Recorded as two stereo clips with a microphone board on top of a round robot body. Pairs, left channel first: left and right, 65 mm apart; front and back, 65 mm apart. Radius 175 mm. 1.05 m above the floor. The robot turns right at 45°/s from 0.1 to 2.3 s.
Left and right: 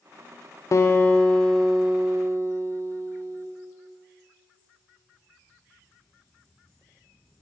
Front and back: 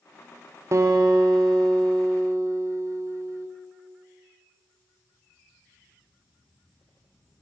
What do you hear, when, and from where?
0.7 s a guitar: 135° left, 0.6 m; by 3.5 s 155° right, 0.6 m